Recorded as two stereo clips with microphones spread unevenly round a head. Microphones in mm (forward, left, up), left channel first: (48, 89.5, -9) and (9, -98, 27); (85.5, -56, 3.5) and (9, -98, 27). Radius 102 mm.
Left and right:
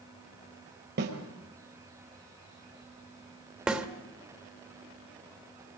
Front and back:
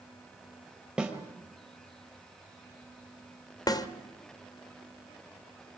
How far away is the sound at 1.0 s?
About 4.5 m.